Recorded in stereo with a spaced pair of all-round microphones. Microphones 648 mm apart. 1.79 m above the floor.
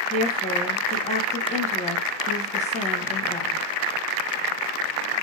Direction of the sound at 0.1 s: 10° left (ahead or behind).